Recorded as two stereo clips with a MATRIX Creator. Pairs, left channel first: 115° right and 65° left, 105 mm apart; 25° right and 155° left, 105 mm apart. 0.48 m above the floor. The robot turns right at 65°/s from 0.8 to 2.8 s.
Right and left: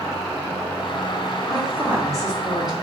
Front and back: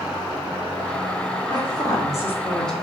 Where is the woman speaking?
20° right, 0.9 m; by 2.7 s 65° left, 0.9 m.